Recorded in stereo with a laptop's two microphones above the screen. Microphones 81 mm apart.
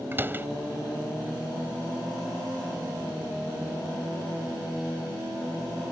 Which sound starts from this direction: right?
A door slam, at 0.1 s.